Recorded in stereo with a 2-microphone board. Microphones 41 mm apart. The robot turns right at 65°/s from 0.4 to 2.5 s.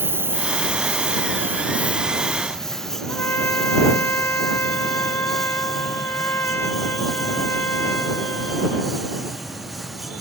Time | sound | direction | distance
0.0 | a lawn mower | 60° right (ahead or behind) | ?
3.1 | a trumpet | 70° left (ahead or behind) | ?